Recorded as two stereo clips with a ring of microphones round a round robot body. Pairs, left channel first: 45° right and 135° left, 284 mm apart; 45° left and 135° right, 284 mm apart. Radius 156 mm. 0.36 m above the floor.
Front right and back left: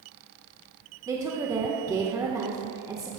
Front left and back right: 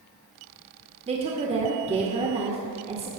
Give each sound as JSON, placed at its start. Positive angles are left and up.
{"t": 1.1, "sound": "a woman speaking", "azimuth_deg": -165, "distance_m": 1.3}